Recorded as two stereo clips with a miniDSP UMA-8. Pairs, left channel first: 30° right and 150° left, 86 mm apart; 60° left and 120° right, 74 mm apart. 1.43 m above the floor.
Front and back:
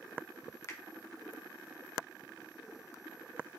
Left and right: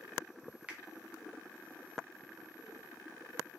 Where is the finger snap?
55° right, 0.7 m.